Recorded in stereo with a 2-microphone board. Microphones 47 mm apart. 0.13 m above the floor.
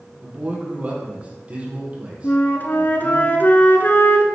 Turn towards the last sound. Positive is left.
turn(degrees=45)  # may be behind; listen again after turning